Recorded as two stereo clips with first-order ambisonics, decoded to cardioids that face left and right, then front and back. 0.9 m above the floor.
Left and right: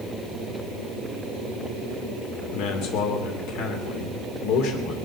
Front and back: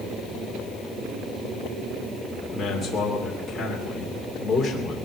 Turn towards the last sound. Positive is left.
turn(degrees=85)